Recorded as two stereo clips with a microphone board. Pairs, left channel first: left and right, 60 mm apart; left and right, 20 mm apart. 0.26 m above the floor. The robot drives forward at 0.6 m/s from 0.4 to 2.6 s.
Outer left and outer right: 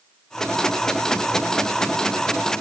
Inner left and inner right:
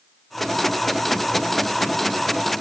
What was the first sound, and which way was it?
Only background noise.